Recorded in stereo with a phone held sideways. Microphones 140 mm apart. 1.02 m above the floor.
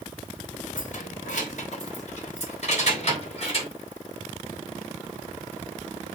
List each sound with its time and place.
0.8 s keys jangling: 65° left (ahead or behind), 2.5 m; by 3.7 s 45° left (ahead or behind), 4 m